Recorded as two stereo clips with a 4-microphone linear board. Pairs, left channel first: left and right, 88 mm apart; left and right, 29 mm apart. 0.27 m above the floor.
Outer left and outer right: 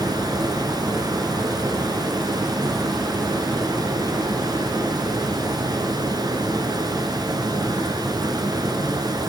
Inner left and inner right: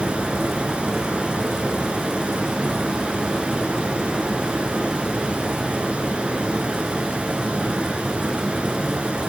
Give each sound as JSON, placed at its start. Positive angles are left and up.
{"t": 0.0, "sound": "running water", "side_deg": -50, "distance_m": 2.5}